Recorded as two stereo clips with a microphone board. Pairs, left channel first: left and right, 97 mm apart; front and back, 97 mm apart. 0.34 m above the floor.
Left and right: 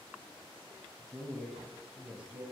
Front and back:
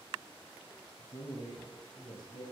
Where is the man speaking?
15° left, 2 m; by 2.5 s 25° right, 2.0 m.